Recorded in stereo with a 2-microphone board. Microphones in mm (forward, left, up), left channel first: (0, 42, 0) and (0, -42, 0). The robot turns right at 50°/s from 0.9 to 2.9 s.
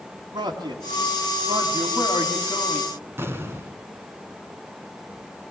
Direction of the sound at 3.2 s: 30° right (ahead or behind).